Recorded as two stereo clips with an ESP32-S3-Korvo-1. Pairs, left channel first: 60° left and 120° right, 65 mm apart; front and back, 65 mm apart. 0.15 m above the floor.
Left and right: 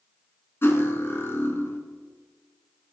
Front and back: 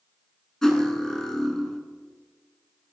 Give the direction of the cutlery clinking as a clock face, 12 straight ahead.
10 o'clock.